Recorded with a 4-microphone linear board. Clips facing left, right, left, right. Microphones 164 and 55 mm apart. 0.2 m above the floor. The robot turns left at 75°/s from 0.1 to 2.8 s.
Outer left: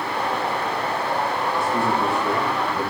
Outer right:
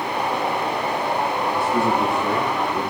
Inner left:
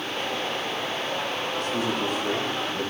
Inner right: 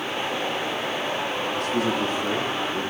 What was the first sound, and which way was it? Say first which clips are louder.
A man speaking: outer right 2 dB, inner right 3 dB; 80° right.